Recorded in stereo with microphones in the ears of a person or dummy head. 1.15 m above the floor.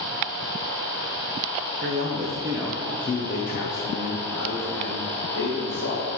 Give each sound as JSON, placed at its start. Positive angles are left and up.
{"t": 1.8, "sound": "a man speaking", "side_deg": -40, "distance_m": 0.8}